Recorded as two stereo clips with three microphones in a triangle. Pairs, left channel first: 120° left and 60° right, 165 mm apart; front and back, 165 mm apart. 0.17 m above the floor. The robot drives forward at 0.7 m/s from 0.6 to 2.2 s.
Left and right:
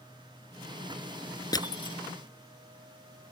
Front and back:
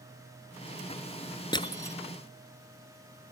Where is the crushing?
55° left; by 2.0 s 70° left.